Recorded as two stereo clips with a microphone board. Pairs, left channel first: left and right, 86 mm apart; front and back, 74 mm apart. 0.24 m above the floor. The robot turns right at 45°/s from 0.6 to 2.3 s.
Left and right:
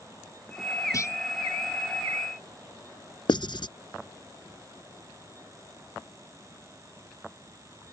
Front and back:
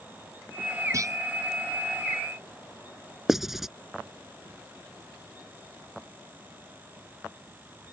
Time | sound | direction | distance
0.9 | a clunk | 140° left | ?
3.3 | writing | 95° left | ?